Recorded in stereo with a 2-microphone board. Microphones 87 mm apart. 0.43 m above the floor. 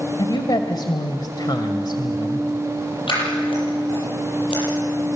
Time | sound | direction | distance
0.2 | a woman speaking | 60° left (ahead or behind) | 1.6 m
3.1 | scissors | 80° left | 9.5 m